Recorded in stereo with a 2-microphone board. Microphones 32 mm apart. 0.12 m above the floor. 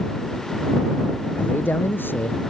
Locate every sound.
1.4 s a man speaking: 80° left